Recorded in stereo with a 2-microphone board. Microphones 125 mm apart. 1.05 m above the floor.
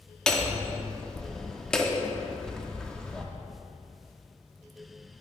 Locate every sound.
0.3 s hammering: 5° left (ahead or behind), 0.9 m